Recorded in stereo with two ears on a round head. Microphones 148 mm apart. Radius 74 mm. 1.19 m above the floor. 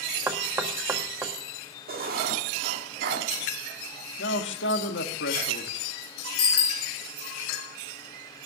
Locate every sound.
0.3 s knocking: 15° right (ahead or behind), 1.3 m
1.9 s writing: 60° right (ahead or behind), 1.7 m
4.2 s a man speaking: 85° left, 1.8 m
6.4 s a bicycle bell: 30° left (ahead or behind), 2.5 m